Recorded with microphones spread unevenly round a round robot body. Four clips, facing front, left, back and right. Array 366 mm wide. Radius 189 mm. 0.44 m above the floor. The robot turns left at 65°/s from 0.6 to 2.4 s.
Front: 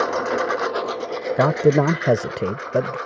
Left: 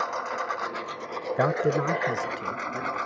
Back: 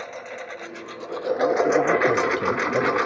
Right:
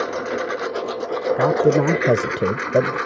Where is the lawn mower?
40° right; by 3.1 s 160° right.